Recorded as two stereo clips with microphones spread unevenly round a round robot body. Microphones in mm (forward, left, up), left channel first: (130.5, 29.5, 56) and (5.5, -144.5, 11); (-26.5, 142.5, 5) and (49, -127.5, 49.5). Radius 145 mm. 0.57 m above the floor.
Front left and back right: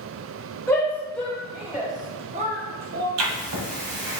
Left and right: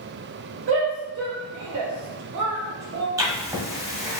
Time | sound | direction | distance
0.7 | a shout | 30° right | 1.9 m
3.2 | writing | 155° right | 1.1 m